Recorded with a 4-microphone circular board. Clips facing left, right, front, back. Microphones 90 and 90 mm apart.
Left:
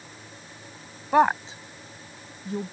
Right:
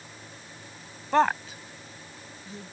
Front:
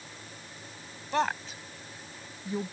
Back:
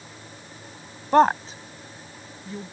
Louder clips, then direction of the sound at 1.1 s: Left 3 dB, back 12 dB; 165° left.